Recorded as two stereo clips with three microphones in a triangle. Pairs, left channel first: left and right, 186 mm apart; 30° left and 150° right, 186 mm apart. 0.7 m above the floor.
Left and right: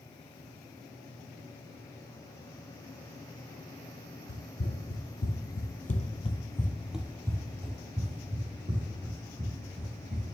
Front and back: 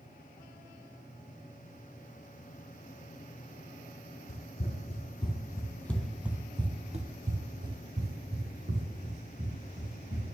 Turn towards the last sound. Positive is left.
turn(degrees=-130)